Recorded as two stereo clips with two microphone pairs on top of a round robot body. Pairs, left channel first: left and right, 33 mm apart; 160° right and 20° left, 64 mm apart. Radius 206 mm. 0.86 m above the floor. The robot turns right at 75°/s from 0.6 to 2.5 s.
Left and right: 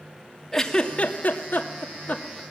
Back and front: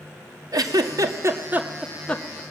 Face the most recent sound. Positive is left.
turn(degrees=155)